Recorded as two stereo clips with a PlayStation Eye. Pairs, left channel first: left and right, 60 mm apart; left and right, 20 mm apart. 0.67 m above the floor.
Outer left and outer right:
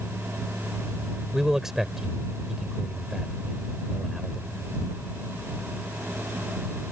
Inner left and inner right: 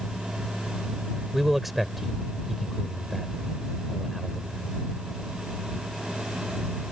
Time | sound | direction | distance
1.3 | a man speaking | 10° right (ahead or behind) | ?